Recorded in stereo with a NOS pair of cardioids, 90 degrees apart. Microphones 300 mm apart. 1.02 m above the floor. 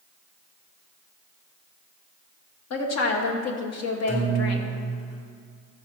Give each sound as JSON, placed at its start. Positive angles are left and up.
{"t": 2.7, "sound": "a woman speaking", "azimuth_deg": 65, "distance_m": 1.4}
{"t": 4.1, "sound": "a guitar", "azimuth_deg": 35, "distance_m": 3.0}